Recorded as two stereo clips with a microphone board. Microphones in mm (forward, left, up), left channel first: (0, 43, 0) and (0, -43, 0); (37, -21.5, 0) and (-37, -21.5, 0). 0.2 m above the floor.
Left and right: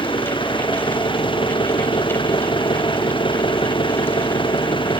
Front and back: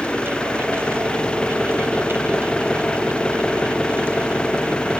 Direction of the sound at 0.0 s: 75° left.